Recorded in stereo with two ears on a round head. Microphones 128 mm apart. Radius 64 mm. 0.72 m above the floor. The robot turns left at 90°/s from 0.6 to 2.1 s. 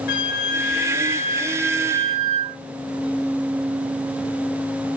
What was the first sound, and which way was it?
A flute, 100° left.